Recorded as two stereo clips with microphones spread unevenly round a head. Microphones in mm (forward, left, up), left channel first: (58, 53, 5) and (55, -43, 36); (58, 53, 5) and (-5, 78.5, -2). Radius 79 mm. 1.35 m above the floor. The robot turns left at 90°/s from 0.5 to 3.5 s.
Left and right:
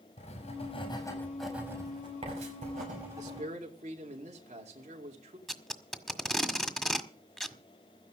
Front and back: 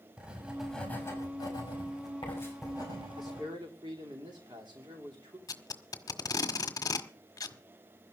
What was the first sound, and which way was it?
Writing, 80° left.